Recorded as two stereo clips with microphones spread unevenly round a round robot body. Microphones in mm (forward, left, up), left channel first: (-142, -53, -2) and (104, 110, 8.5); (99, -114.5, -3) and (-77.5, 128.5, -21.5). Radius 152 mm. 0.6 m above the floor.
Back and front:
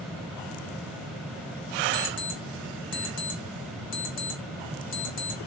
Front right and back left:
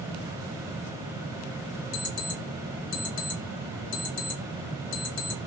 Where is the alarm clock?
120° right, 1.6 m.